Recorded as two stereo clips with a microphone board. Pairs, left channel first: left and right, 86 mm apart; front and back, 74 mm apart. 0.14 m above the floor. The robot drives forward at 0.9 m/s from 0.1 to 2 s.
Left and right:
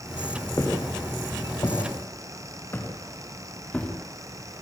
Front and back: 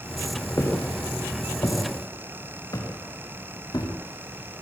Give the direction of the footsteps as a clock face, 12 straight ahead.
11 o'clock.